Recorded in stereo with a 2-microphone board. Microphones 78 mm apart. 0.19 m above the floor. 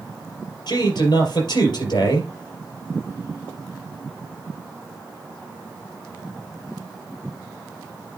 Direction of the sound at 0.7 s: 65° left (ahead or behind).